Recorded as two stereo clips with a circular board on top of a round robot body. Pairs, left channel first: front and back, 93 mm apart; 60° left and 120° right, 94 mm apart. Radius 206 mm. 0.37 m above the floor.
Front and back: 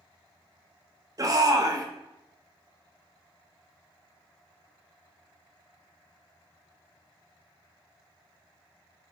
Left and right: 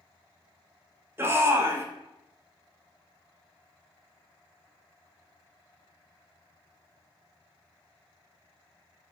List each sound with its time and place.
1.2 s a shout: 165° right, 1.4 m